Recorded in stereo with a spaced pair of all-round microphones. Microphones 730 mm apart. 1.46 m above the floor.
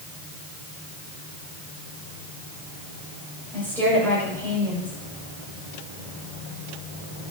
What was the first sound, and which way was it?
A woman speaking, centre (ahead or behind).